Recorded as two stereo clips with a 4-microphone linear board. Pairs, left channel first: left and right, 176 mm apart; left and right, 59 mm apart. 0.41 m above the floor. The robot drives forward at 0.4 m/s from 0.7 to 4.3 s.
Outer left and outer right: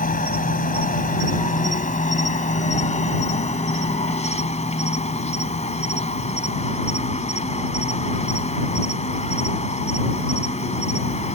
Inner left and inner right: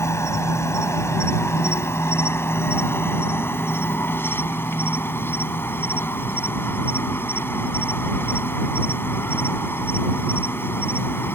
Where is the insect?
50° left (ahead or behind); by 11.3 s 40° left (ahead or behind).